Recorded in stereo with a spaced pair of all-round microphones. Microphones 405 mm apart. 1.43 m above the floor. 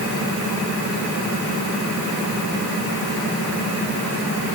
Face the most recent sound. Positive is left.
No sound to turn to.